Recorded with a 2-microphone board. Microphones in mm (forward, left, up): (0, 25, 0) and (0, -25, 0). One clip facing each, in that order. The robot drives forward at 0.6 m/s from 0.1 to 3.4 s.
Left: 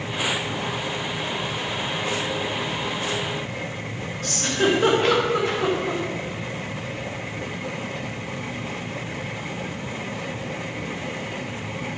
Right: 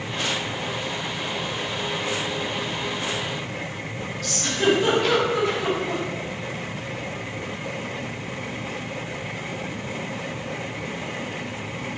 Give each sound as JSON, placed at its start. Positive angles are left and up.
{"t": 4.2, "sound": "a giggle", "side_deg": 35, "distance_m": 3.5}